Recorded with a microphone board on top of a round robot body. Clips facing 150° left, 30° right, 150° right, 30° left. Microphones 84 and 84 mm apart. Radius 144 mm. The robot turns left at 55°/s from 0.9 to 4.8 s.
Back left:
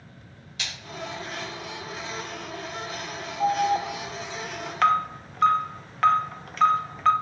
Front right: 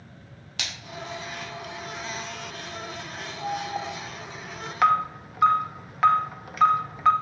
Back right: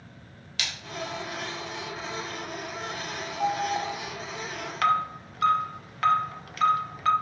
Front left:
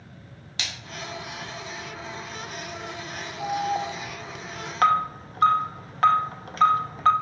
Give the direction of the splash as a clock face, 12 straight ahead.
1 o'clock.